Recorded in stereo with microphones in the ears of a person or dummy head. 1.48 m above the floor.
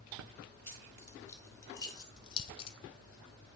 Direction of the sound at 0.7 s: 10° left (ahead or behind).